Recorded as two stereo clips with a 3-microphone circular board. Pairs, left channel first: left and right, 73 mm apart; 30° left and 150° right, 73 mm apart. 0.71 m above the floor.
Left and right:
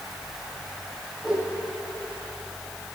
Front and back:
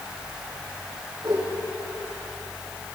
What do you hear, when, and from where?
1.2 s a whoosh: 170° right, 9.5 m